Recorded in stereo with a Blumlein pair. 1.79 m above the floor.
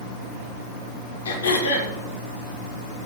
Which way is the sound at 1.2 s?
70° left.